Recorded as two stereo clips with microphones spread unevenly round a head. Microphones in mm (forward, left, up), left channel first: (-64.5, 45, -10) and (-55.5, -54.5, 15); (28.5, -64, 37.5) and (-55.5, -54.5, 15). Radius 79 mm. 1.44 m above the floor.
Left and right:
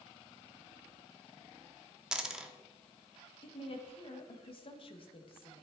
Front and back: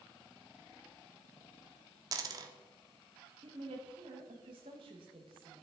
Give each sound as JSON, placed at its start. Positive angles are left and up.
{"t": 2.1, "sound": "a dropped coin", "azimuth_deg": -145, "distance_m": 1.1}
{"t": 3.4, "sound": "a woman speaking", "azimuth_deg": 130, "distance_m": 1.5}